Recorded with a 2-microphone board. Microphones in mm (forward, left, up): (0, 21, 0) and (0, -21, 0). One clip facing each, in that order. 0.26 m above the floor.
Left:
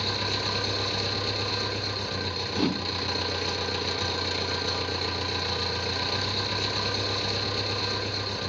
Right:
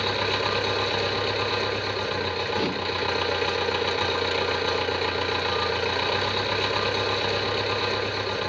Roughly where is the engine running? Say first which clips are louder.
Right 5 dB; right.